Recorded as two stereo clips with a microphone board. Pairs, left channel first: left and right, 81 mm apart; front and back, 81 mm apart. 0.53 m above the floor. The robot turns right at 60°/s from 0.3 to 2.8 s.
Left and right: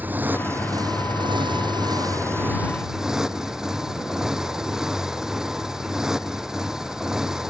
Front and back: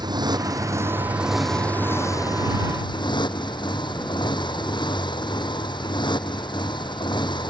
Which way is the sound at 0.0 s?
155° right.